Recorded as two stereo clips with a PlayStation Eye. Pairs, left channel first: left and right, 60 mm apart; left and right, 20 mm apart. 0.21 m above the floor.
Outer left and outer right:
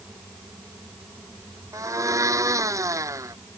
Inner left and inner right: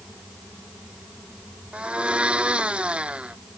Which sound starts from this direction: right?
A blender, at 1.7 s.